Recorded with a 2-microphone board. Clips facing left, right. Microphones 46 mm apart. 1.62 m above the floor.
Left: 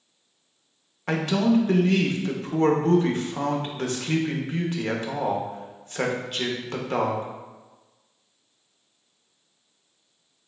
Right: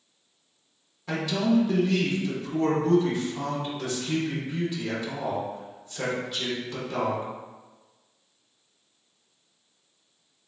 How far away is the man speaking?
About 0.7 m.